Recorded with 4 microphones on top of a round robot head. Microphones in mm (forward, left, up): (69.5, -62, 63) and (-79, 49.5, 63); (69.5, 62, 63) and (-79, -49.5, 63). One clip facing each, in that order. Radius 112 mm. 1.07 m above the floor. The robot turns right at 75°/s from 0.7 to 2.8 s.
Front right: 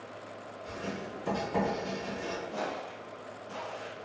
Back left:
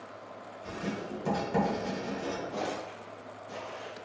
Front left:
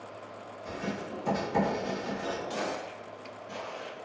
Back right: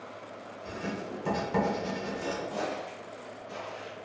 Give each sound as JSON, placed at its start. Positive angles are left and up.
{"t": 0.7, "sound": "writing", "azimuth_deg": 140, "distance_m": 1.4}
{"t": 2.5, "sound": "footsteps", "azimuth_deg": 65, "distance_m": 1.7}